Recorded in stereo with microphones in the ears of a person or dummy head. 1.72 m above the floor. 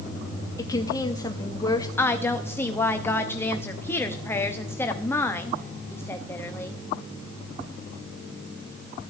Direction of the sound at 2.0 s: 15° left (ahead or behind).